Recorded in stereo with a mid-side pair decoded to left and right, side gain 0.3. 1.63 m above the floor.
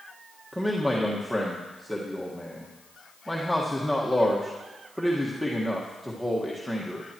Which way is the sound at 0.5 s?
5° right.